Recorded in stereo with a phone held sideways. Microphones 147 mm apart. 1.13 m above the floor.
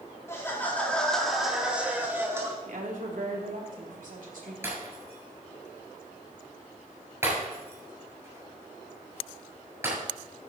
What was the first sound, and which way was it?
Laughter, 20° left (ahead or behind).